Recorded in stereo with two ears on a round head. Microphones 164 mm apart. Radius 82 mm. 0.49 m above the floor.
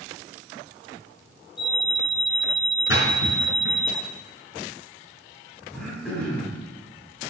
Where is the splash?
65° left (ahead or behind), 4.5 m.